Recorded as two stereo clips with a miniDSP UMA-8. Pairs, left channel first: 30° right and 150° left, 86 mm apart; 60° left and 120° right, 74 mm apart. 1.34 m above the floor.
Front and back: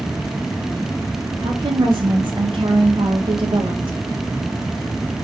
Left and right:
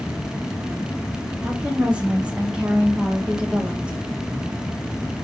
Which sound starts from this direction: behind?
A woman speaking, at 1.4 s.